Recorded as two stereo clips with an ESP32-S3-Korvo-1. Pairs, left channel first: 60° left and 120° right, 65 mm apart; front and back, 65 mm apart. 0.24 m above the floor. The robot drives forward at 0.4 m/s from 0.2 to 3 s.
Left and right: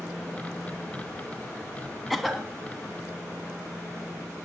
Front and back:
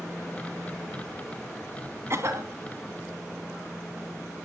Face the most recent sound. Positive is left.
turn(degrees=155)